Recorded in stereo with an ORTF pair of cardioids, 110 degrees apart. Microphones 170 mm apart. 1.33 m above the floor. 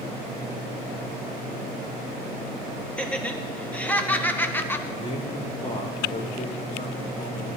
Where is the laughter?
5° left, 2.5 m; by 4.8 s 15° left, 1.3 m.